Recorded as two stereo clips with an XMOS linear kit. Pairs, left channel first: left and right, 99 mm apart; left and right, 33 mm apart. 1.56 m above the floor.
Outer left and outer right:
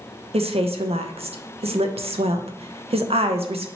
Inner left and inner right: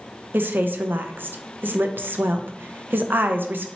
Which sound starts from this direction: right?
A woman speaking, at 0.3 s.